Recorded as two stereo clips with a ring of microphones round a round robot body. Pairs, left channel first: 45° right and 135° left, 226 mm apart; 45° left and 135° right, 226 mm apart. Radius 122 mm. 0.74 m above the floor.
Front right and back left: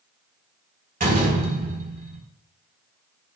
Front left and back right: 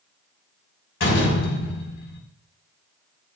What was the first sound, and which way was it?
A door slam, 80° left.